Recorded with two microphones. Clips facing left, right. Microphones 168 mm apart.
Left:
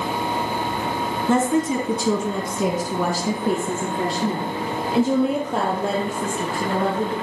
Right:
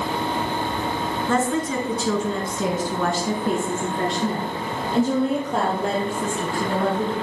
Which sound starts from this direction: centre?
A woman speaking, at 1.3 s.